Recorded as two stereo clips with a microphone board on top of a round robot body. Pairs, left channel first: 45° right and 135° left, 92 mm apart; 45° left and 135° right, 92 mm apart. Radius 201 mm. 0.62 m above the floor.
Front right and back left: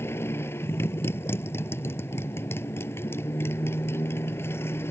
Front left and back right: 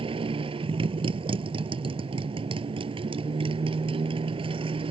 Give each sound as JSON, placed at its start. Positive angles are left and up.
{"t": 0.0, "sound": "a motorcycle", "azimuth_deg": -110}